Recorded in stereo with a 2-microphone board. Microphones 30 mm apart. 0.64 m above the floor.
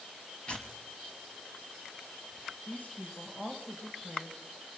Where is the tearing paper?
30° left (ahead or behind), 2.5 m.